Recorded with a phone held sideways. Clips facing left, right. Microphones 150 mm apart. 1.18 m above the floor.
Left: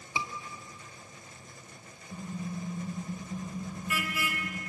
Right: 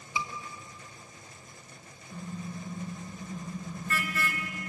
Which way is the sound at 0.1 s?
30° left (ahead or behind).